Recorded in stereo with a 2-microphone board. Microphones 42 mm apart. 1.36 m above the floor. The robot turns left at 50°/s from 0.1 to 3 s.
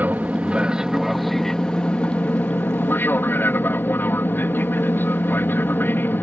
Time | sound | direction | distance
0.0 | an aircraft | 125° right | ?